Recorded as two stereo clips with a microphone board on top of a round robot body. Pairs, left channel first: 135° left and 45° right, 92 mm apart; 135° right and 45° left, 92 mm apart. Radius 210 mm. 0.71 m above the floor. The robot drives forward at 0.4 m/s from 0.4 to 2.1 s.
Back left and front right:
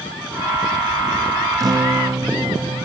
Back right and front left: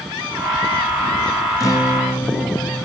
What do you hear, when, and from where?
1.6 s a guitar: 85° right, 1.7 m; by 2.9 s 95° right, 1.7 m